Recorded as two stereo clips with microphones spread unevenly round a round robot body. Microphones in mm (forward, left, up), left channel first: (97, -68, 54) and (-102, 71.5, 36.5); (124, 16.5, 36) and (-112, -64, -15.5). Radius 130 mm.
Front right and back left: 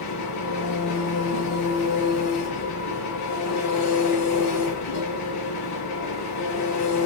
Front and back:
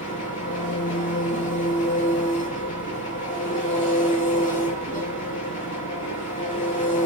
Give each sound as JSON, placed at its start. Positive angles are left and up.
{"t": 0.0, "sound": "an engine running", "azimuth_deg": -40, "distance_m": 6.0}